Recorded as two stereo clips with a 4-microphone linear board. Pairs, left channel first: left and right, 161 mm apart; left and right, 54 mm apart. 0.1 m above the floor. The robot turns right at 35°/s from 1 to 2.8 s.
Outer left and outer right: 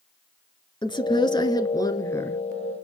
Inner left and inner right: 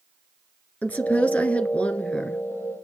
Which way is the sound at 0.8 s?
30° left (ahead or behind).